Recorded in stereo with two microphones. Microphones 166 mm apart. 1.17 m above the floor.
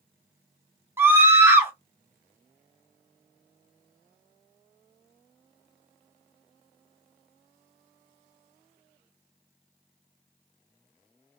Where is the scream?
15° right (ahead or behind), 1.0 m.